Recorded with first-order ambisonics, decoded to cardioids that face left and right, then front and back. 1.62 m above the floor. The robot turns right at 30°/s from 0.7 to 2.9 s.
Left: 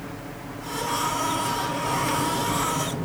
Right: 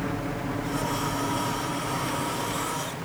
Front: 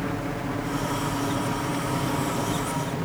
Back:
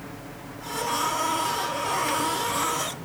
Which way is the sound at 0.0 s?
35° right.